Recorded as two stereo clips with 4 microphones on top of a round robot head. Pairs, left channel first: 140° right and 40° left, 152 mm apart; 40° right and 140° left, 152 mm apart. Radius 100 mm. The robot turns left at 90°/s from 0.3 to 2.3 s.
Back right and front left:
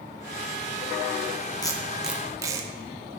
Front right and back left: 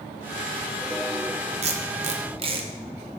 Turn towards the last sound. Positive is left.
turn(degrees=100)